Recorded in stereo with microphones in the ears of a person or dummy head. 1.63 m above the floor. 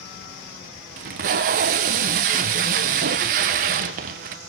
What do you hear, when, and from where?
1.0 s tape being pulled: 40° right (ahead or behind), 0.7 m